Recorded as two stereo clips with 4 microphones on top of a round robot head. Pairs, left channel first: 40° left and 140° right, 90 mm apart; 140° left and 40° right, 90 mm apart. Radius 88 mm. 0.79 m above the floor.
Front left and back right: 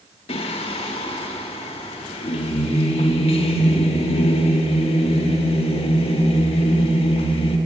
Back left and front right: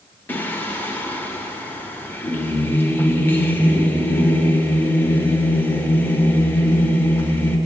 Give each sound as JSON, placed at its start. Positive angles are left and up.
{"t": 0.3, "sound": "singing", "azimuth_deg": 70, "distance_m": 0.8}